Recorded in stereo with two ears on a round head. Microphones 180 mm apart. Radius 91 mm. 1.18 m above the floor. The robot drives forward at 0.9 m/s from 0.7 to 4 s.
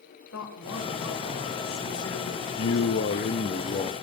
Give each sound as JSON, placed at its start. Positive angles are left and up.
{"t": 0.3, "sound": "a woman speaking", "side_deg": 80, "distance_m": 5.0}
{"t": 2.6, "sound": "a man speaking", "side_deg": 75, "distance_m": 0.9}